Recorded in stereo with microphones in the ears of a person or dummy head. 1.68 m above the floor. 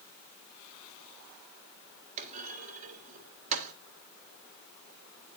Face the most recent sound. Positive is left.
turn(degrees=-40)  # may be behind; listen again after turning